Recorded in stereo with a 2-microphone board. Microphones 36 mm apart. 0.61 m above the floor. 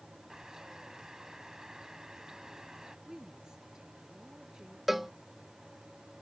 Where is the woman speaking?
20° right (ahead or behind).